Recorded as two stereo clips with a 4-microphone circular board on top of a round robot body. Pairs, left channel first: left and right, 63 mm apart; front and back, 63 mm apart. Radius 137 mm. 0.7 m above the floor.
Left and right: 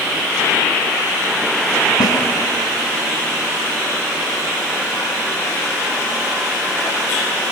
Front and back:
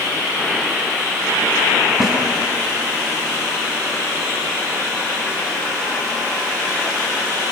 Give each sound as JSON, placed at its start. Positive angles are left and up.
{"t": 2.0, "sound": "a snare drum", "azimuth_deg": 90, "distance_m": 4.5}